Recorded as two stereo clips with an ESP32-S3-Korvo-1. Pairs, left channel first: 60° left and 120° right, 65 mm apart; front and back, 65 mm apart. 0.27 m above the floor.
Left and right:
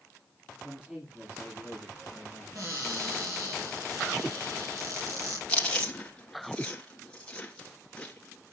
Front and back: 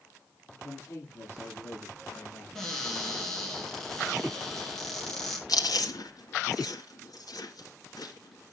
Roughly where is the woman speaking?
Ahead right.